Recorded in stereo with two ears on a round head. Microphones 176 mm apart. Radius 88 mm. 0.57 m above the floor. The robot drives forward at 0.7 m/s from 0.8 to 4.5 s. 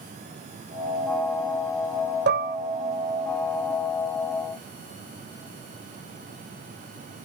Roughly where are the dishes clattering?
Right.